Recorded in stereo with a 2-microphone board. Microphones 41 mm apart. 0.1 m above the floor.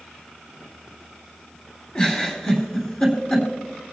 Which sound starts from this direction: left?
A giggle, at 1.9 s.